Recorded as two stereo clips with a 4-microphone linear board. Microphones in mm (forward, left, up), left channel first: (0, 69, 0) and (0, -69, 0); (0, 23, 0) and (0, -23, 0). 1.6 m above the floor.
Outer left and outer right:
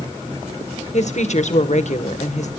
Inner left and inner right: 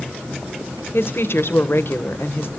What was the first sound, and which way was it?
A woman speaking, 65° left (ahead or behind).